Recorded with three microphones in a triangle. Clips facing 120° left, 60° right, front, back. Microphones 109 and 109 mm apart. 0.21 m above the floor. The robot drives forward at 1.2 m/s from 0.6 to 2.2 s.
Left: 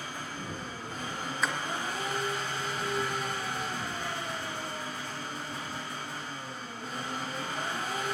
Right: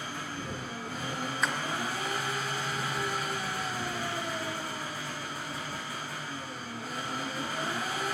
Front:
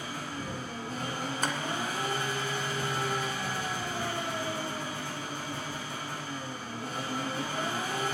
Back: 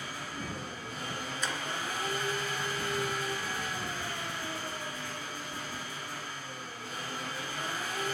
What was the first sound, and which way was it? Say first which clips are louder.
An engine running: right 1 dB, front 3 dB; 20° left.